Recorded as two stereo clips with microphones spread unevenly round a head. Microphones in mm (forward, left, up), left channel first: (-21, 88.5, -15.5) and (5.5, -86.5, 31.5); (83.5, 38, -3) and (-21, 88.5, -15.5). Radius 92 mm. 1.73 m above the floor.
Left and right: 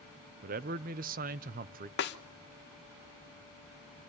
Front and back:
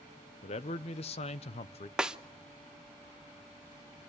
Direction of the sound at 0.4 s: 55° right.